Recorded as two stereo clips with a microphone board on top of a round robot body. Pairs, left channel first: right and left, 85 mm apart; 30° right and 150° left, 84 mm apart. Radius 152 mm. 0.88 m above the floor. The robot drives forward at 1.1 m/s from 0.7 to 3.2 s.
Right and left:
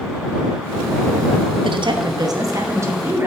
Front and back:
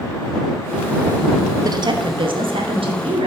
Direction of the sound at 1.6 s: 105° left.